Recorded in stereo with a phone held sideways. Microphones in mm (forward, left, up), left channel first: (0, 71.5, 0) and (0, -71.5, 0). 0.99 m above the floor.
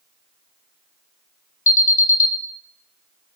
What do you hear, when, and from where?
1.7 s an alarm: 65° left (ahead or behind), 0.6 m